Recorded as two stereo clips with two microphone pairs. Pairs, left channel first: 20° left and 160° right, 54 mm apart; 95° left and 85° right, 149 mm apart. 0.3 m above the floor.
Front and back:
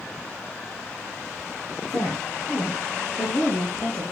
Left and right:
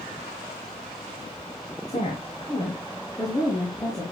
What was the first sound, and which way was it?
A woman speaking, 55° left.